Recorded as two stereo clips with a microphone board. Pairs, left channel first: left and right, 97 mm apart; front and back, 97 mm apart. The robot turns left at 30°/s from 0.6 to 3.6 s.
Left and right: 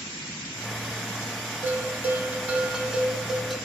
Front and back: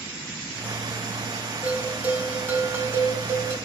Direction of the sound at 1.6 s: 120° right.